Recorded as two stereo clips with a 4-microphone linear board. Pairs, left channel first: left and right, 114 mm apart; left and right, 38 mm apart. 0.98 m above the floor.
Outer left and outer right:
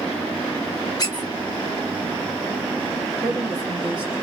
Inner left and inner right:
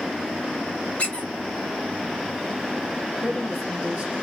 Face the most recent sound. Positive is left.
turn(degrees=-10)  # may be behind; listen again after turning